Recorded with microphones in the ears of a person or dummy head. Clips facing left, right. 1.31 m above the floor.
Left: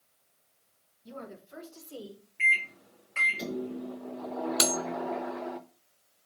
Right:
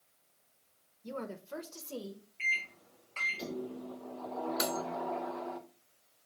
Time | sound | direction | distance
1.0 | a woman speaking | 80° right | 1.3 m
2.4 | a microwave | 15° left (ahead or behind) | 0.6 m
4.6 | cutlery clinking | 50° left (ahead or behind) | 0.7 m